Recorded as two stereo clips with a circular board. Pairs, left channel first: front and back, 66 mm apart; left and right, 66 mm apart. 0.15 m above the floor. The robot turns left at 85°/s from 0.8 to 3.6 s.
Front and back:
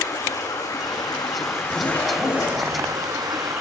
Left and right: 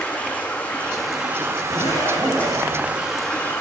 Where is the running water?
20° left, 7 m; by 3.6 s 145° left, 7 m.